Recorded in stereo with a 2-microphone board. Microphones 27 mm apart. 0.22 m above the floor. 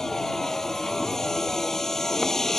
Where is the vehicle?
15° left (ahead or behind).